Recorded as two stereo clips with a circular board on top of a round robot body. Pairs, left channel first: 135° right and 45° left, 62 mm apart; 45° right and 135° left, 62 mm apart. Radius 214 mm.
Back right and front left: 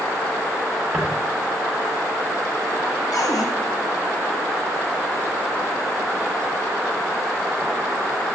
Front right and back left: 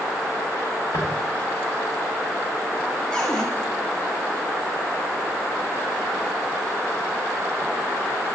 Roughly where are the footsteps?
Ahead right.